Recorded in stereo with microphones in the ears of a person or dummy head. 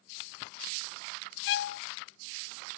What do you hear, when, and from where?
1.5 s a violin: 55° left (ahead or behind)